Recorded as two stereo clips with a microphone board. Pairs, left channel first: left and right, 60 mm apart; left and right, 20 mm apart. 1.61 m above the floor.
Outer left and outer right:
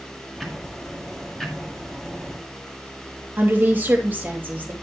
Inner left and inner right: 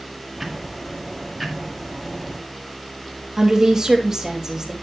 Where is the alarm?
No alarm in this recording.